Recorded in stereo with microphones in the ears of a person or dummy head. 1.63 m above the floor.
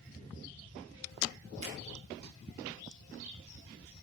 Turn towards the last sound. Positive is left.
turn(degrees=-85)